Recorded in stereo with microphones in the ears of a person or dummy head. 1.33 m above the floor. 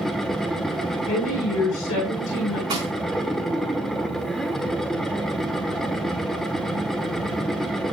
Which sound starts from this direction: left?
A woman speaking, at 1.1 s.